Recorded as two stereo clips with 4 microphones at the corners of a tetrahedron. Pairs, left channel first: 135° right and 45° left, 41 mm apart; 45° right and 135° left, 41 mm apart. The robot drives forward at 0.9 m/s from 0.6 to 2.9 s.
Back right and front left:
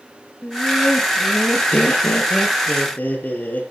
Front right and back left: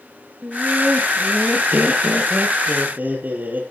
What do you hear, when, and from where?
0.4 s laughter: 175° left, 2.5 m; by 3.6 s straight behind, 4.5 m